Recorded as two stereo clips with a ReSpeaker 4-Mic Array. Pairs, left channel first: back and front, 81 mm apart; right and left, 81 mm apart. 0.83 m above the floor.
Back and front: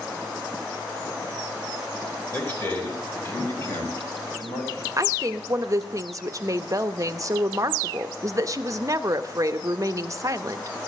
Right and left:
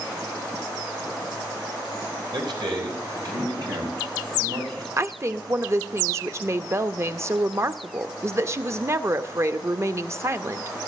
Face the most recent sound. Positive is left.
turn(degrees=40)